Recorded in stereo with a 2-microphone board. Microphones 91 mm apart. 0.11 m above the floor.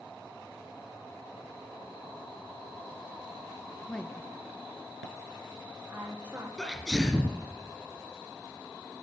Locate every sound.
3.9 s a woman speaking: 15° left (ahead or behind), 1.6 m; by 6.5 s 15° right (ahead or behind), 4 m
6.6 s a sneeze: 5° left (ahead or behind), 1.5 m